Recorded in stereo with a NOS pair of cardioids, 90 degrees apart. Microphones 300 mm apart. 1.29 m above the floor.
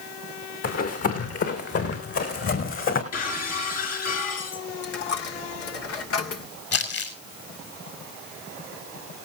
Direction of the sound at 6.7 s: 55° left.